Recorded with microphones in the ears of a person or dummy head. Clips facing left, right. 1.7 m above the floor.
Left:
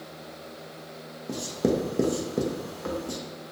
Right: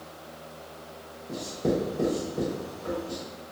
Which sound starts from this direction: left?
Writing, at 1.3 s.